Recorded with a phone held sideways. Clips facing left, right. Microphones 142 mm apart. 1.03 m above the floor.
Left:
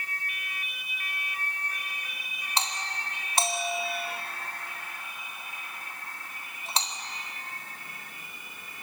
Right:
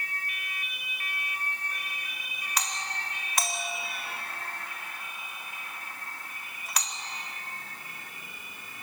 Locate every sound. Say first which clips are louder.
2.6 s a doorbell: left 2 dB; 25° left (ahead or behind), 4 m